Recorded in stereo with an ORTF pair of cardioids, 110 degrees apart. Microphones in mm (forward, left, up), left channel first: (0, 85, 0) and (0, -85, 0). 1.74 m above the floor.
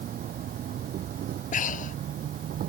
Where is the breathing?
50° left.